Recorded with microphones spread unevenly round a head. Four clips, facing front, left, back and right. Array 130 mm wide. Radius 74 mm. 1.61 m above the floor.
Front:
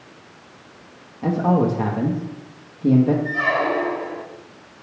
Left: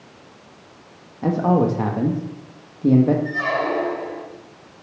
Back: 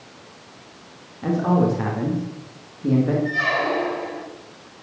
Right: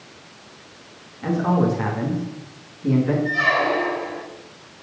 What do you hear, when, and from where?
1.2 s a man speaking: 100° left, 2 m
3.2 s a squeak: 140° left, 1.5 m